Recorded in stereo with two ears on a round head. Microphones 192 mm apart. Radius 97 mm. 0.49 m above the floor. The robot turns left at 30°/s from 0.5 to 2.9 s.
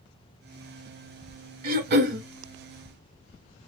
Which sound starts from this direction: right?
Throat clearing, at 1.6 s.